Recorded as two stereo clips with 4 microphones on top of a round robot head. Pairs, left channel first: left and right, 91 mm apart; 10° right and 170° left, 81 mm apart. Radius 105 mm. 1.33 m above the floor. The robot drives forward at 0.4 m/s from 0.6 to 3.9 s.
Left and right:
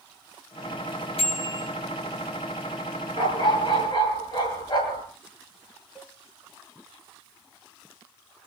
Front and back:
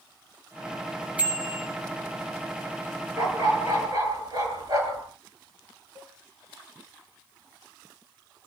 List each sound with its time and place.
1.2 s a bicycle bell: 95° left, 6.5 m
3.2 s a dog barking: 125° left, 7.5 m
6.0 s a cowbell: straight behind, 5.5 m